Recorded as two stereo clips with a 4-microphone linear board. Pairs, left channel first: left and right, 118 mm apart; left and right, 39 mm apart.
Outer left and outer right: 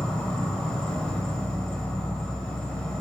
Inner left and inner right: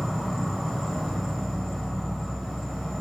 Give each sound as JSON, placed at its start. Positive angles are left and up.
{"t": 0.0, "sound": "an insect", "side_deg": 5, "distance_m": 0.8}